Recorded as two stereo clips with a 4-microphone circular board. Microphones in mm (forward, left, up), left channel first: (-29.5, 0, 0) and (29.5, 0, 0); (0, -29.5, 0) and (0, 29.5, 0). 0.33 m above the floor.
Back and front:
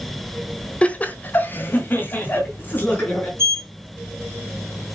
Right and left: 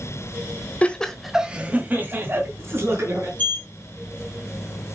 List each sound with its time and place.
0.8 s laughter: 135° right, 1.3 m; by 3.3 s 125° left, 4 m
3.4 s a sliding door: 35° right, 2.5 m